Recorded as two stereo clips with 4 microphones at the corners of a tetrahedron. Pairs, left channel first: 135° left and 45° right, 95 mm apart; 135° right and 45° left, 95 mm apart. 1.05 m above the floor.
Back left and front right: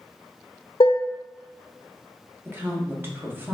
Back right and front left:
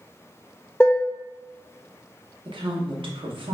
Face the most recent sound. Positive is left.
turn(degrees=25)